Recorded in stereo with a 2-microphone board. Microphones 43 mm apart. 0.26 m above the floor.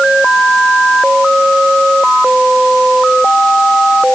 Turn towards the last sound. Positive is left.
No sound to turn to.